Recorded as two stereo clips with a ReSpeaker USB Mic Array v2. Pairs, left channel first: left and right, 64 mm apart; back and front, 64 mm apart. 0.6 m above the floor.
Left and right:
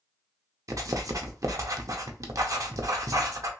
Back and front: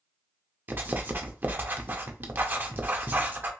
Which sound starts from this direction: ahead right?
Writing, at 0.7 s.